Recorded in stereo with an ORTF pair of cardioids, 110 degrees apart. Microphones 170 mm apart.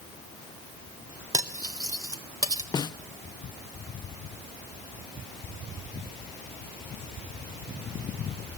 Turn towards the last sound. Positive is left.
turn(degrees=25)